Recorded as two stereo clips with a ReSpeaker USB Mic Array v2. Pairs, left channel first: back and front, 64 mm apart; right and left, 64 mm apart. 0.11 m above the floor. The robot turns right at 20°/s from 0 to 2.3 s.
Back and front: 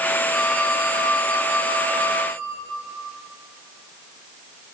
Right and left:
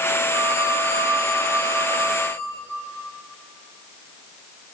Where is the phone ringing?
95° left, 8 m; by 2.3 s 135° left, 8 m.